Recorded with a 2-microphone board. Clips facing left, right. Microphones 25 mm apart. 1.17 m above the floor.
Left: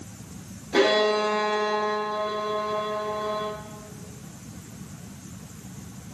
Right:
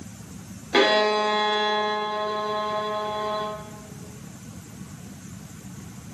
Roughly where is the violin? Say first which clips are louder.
Right 1 dB; right.